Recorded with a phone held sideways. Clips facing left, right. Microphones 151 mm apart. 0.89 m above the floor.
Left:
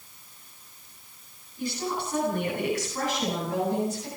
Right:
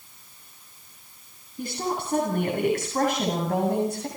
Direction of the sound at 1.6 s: 55° right (ahead or behind).